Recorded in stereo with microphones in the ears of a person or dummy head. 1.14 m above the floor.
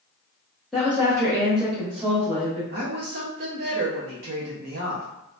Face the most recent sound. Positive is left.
turn(degrees=-50)  # may be behind; listen again after turning